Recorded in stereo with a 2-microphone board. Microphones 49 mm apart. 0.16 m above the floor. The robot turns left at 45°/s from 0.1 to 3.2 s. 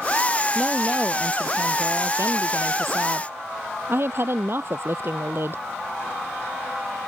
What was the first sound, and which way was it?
A woman speaking, 10° right.